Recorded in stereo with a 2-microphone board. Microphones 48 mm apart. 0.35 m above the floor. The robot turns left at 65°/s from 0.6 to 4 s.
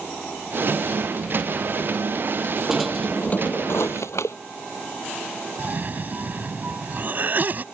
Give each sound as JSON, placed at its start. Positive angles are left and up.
{"t": 2.7, "sound": "a drawer", "azimuth_deg": -175}
{"t": 5.6, "sound": "a cough", "side_deg": -40}